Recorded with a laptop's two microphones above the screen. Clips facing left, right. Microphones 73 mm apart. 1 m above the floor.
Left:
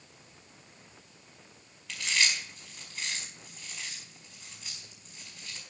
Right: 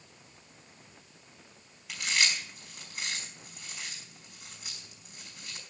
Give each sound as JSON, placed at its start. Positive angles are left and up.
{"t": 1.9, "sound": "chewing", "side_deg": -10, "distance_m": 5.0}